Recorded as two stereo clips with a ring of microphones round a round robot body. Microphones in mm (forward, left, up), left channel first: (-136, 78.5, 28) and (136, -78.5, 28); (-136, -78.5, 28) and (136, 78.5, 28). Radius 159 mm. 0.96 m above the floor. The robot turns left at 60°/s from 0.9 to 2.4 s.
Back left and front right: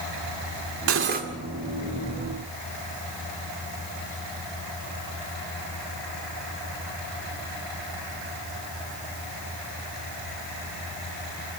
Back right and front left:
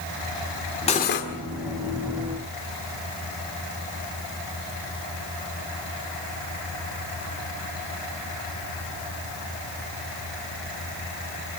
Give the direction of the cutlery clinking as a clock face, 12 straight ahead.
3 o'clock.